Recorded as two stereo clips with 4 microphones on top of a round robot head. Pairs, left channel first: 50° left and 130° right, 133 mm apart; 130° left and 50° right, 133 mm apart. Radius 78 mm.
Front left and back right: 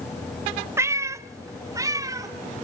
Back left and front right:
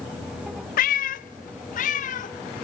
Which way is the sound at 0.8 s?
155° left.